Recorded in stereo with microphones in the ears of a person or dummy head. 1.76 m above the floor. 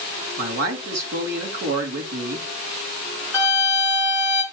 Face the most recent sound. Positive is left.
turn(degrees=-10)  # may be behind; listen again after turning